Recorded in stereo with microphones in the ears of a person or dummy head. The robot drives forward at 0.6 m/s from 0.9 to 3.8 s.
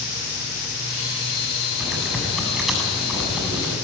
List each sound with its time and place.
1.8 s typing on a keyboard: centre (ahead or behind), 7.5 m